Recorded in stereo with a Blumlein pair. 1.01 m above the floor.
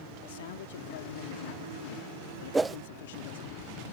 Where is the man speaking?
55° left.